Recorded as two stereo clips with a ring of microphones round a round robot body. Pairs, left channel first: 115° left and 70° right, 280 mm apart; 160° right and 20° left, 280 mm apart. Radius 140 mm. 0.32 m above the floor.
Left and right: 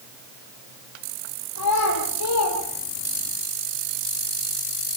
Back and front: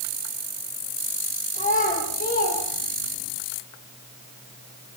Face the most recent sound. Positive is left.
turn(degrees=150)